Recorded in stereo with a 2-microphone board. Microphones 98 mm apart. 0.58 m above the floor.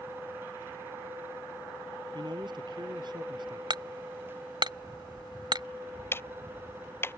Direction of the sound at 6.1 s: 20° left (ahead or behind).